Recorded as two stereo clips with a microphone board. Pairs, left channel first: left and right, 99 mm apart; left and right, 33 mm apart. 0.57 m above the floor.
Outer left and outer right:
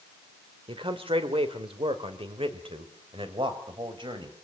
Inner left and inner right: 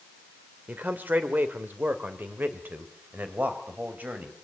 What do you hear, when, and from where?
0.7 s a man speaking: 60° right (ahead or behind), 2.5 m; by 4.3 s 50° right (ahead or behind), 3.5 m